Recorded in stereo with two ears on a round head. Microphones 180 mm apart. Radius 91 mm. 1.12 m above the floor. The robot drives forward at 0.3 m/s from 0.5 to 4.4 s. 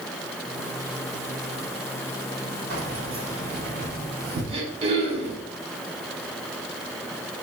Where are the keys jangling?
60° right (ahead or behind), 2 m; by 5.4 s 50° right (ahead or behind), 2.5 m.